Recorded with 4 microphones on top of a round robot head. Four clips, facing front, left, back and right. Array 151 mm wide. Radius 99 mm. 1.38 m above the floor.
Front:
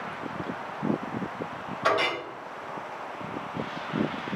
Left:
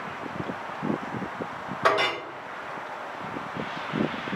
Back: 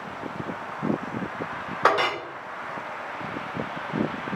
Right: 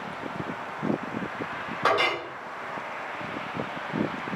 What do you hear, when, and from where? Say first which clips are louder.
1.8 s a clink: left 1 dB, back 4 dB; 175° left, 1.7 m